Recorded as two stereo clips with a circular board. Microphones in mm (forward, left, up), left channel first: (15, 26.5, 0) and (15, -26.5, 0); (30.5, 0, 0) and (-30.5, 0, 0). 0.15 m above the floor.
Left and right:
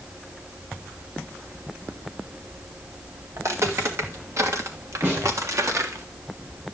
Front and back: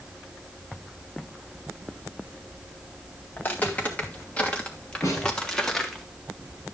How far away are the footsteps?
About 3 m.